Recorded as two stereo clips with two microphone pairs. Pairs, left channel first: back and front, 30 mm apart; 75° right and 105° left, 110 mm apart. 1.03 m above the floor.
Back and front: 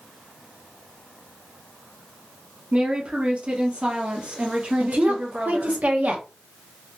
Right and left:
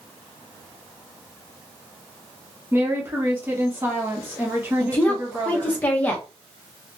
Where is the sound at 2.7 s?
40° left, 1.0 m.